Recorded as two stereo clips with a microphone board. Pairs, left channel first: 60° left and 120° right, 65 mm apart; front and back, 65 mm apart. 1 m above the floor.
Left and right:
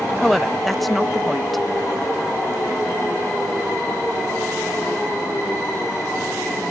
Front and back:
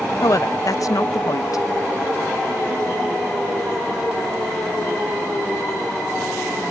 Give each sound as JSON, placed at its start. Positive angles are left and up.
{"t": 0.2, "sound": "a woman speaking", "azimuth_deg": -30}